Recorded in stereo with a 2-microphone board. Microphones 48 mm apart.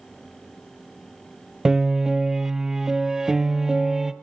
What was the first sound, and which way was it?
A piano, 10° right (ahead or behind).